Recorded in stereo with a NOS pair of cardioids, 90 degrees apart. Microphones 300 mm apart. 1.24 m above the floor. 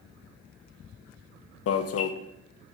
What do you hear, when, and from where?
1.7 s an alarm: 55° left, 0.9 m